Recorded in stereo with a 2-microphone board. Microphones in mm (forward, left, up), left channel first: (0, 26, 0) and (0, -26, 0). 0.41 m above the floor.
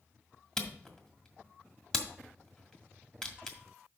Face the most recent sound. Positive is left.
turn(degrees=15)  # may be behind; listen again after turning